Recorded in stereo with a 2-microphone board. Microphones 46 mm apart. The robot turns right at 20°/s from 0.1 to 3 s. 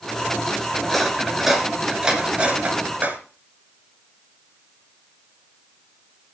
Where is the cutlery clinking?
5° left (ahead or behind), 2 m; by 3.2 s 35° right (ahead or behind), 2 m.